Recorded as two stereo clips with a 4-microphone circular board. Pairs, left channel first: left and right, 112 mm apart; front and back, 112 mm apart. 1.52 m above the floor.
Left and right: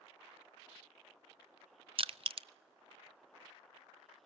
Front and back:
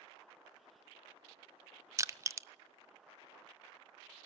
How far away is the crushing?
About 0.5 m.